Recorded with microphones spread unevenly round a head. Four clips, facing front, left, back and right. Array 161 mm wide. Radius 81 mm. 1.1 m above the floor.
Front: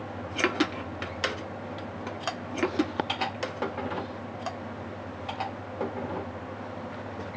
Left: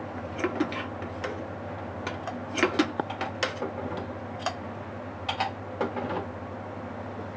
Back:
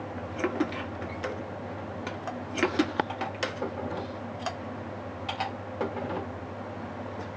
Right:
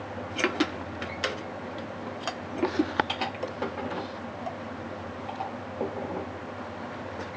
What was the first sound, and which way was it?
Only background noise.